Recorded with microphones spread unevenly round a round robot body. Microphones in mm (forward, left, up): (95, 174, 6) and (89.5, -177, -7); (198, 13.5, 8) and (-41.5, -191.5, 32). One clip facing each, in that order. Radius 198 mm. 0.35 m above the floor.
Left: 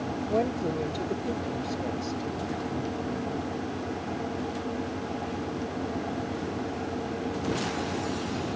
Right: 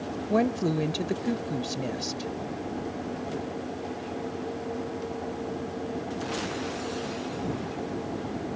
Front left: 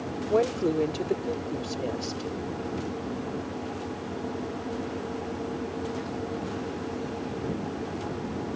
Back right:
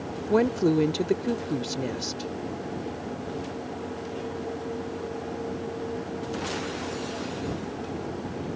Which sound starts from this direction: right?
A woman speaking, at 0.3 s.